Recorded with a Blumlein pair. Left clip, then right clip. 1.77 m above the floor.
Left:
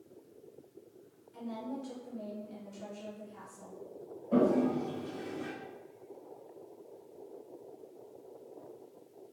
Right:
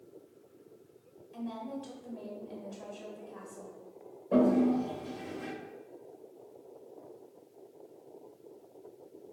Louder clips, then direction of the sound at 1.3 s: Right 1 dB; 40° right.